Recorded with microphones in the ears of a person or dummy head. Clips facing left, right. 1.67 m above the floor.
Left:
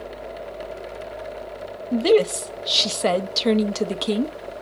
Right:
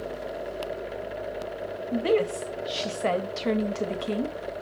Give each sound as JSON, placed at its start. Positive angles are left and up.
{"t": 1.9, "sound": "a woman speaking", "side_deg": 60, "distance_m": 0.7}